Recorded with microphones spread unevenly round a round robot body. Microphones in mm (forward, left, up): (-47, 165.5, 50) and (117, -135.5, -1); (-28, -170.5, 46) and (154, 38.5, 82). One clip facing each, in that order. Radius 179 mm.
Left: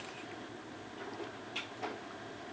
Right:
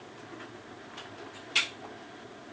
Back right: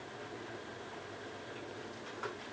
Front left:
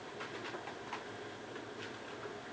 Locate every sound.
Only background noise.